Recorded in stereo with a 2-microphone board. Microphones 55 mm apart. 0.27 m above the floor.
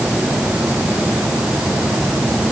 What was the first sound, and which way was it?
Only background noise.